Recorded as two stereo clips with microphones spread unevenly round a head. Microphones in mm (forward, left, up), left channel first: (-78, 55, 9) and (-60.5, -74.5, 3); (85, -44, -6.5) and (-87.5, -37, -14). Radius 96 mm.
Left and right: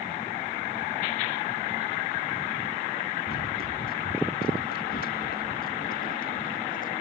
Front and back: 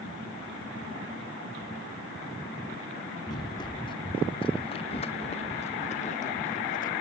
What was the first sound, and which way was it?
Running footsteps, 70° left.